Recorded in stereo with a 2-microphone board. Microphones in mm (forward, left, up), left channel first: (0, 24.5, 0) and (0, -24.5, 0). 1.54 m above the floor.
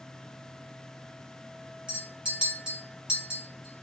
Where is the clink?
20° right (ahead or behind), 1.5 m.